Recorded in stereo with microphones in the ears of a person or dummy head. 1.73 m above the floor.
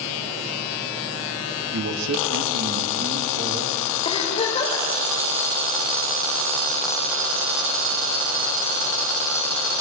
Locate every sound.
1.7 s a man speaking: 70° right (ahead or behind), 4 m; by 3.8 s 30° right (ahead or behind), 3.5 m
4.0 s a giggle: 35° left (ahead or behind), 4.5 m